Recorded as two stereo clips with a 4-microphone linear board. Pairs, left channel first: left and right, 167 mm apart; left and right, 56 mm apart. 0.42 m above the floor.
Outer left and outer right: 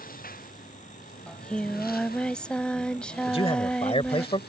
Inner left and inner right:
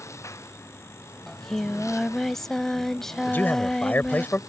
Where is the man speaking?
35° left (ahead or behind).